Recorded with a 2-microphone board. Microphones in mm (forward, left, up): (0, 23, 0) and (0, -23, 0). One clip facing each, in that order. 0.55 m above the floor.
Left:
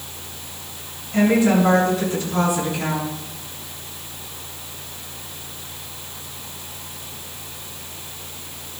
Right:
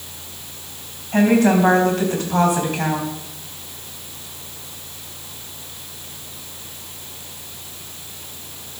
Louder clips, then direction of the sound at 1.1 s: Right 2 dB; 60° right (ahead or behind).